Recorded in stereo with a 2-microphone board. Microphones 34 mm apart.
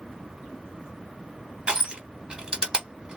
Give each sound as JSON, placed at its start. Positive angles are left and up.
{"t": 1.7, "sound": "crushing", "side_deg": -30, "distance_m": 1.7}